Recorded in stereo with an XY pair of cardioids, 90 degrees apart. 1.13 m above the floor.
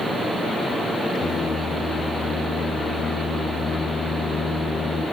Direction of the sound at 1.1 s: 55° left.